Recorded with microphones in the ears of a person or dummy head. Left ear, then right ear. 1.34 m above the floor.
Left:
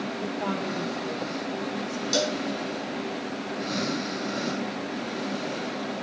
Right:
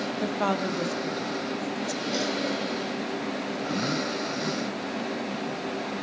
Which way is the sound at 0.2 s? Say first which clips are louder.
Right 5 dB; 45° right (ahead or behind).